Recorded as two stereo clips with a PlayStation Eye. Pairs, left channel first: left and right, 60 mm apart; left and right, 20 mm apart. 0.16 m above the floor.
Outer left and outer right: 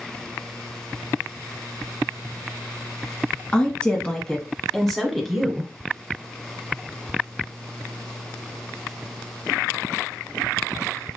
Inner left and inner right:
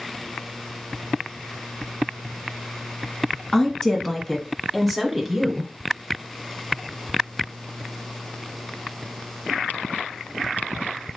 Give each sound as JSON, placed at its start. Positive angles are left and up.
{"t": 3.5, "sound": "a woman speaking", "side_deg": 20, "distance_m": 1.4}